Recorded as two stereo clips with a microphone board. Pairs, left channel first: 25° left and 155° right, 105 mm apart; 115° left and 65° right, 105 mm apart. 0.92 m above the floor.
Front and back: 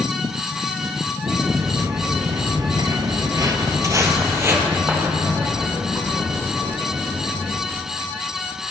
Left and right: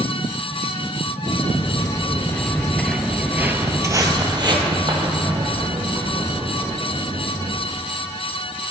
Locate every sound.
1.3 s footsteps: 140° left, 1.5 m; by 7.6 s 80° right, 3.5 m